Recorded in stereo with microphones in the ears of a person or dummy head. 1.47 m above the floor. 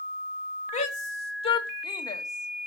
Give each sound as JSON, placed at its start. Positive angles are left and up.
{"t": 0.7, "sound": "a shout", "side_deg": 45, "distance_m": 2.0}